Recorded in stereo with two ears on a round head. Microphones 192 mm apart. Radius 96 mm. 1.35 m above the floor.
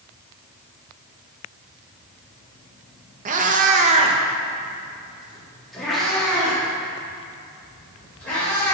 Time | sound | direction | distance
3.2 | a cat meowing | 35° right (ahead or behind) | 0.7 m